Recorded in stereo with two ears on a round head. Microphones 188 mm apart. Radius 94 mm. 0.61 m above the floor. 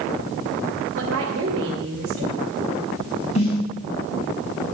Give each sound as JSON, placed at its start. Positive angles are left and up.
{"t": 0.9, "sound": "a woman speaking", "side_deg": -70, "distance_m": 2.5}
{"t": 3.4, "sound": "a snare drum", "side_deg": 35, "distance_m": 5.0}